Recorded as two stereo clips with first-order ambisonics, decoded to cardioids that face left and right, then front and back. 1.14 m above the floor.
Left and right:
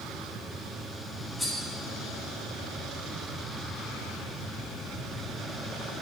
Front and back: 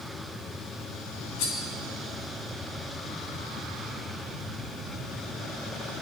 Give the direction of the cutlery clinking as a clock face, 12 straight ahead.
12 o'clock.